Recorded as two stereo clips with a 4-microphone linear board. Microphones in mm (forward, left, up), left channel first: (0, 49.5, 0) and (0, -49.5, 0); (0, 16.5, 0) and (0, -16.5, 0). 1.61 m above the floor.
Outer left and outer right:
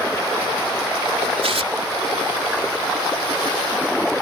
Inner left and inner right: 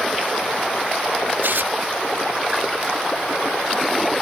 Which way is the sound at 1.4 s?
85° right.